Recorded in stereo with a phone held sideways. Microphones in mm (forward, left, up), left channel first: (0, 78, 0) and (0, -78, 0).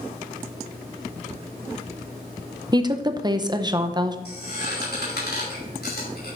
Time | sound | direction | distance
2.7 | a woman speaking | 25° right (ahead or behind) | 0.8 m
4.2 | a squeak | 75° left (ahead or behind) | 5.5 m